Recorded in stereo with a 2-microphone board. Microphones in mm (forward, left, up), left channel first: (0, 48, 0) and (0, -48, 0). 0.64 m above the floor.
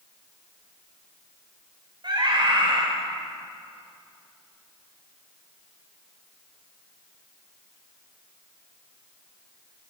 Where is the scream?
55° right (ahead or behind), 2.5 m.